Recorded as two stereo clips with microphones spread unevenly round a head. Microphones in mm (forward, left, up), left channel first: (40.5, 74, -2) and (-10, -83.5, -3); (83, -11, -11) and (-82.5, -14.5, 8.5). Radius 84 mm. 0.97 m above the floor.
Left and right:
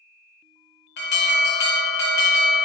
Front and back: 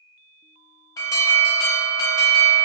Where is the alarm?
70° left, 0.9 m.